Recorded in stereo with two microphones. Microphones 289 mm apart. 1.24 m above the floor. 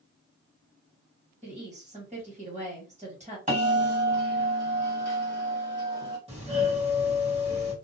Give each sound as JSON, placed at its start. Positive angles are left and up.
{"t": 1.4, "sound": "a woman speaking", "side_deg": -25, "distance_m": 1.7}
{"t": 3.5, "sound": "a bell", "side_deg": -25, "distance_m": 1.7}
{"t": 6.3, "sound": "a doorbell", "side_deg": -20, "distance_m": 1.4}